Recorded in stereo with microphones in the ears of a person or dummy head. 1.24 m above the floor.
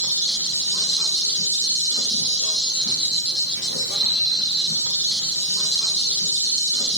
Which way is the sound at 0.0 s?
50° left (ahead or behind).